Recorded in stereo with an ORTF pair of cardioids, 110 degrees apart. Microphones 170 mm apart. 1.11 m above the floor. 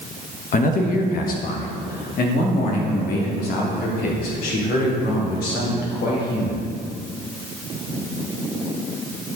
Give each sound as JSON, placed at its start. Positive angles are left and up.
{"t": 0.5, "sound": "a man speaking", "azimuth_deg": 55, "distance_m": 1.2}